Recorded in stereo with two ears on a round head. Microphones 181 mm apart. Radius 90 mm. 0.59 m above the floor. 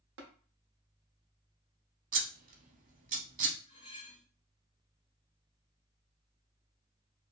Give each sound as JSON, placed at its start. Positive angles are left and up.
{"t": 0.2, "sound": "tapping", "side_deg": -65, "distance_m": 0.8}
{"t": 2.1, "sound": "scissors", "side_deg": -40, "distance_m": 0.7}
{"t": 3.7, "sound": "cutlery clinking", "side_deg": 35, "distance_m": 1.6}